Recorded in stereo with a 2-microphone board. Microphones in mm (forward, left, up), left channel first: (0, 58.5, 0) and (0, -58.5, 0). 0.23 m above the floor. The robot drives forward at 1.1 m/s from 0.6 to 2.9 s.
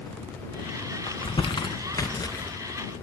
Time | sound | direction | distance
1.1 | crumpling | 50° left (ahead or behind) | 1.3 m